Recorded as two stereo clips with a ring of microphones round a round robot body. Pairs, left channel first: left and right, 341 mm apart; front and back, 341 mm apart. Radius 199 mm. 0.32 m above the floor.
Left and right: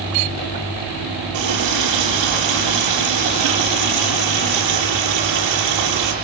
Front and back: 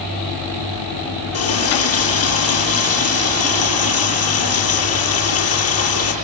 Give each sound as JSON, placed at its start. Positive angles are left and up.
{"t": 1.3, "sound": "a running tap", "azimuth_deg": -50, "distance_m": 7.5}